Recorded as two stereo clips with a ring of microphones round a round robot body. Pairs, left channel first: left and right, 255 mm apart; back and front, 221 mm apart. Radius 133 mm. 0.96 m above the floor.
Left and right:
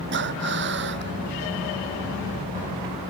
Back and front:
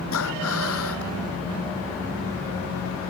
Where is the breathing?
140° right.